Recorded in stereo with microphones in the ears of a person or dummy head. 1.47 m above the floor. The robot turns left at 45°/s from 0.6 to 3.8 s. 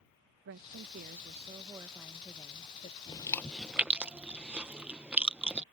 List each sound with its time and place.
0.5 s a woman speaking: 115° right; by 3.0 s 140° left
3.1 s chewing: 25° left (ahead or behind); by 5.6 s 5° right (ahead or behind)